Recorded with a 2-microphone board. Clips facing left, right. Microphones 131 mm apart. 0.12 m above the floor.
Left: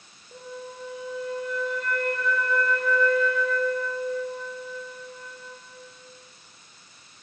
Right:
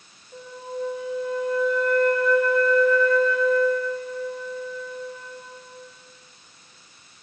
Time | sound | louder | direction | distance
0.3 | a flute | right 5 dB | 65° left (ahead or behind) | 4 m